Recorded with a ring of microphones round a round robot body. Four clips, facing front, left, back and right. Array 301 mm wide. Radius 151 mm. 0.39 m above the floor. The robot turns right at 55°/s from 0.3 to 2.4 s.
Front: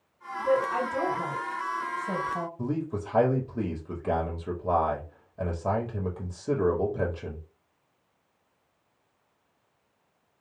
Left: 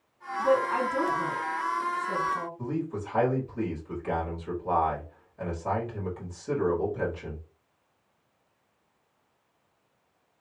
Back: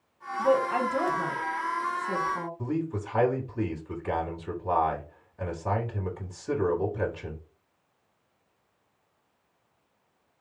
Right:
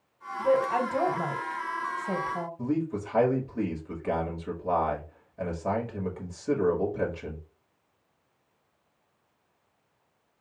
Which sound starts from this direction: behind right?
A woman speaking, at 0.4 s.